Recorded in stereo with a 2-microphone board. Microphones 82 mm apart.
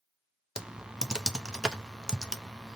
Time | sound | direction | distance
0.6 | typing on a keyboard | 10° right (ahead or behind) | 0.5 m